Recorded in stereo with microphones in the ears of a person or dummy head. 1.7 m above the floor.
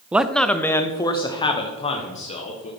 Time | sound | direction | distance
0.1 | a man speaking | 5° right (ahead or behind) | 0.5 m